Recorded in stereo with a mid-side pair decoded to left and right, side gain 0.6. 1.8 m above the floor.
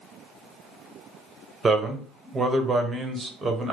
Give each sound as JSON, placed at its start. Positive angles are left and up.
{"t": 1.6, "sound": "a man speaking", "azimuth_deg": -25, "distance_m": 1.1}